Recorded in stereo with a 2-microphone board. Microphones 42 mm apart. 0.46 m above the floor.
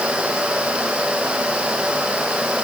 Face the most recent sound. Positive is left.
No sound to turn to.